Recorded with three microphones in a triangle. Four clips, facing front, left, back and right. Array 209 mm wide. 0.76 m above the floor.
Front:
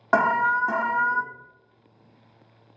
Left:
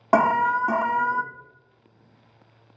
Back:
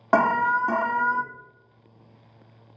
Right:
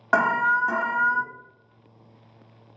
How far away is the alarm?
About 0.6 m.